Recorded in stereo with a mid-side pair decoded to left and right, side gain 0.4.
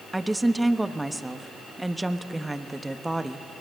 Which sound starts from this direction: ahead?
A woman speaking, at 0.1 s.